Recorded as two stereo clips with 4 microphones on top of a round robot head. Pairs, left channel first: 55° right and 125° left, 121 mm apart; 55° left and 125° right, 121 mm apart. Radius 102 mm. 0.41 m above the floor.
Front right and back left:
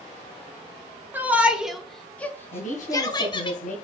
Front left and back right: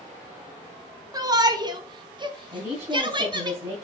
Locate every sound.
1.1 s a shout: 170° right, 1.7 m; by 3.5 s 85° right, 1.7 m
2.5 s a woman speaking: 70° right, 3 m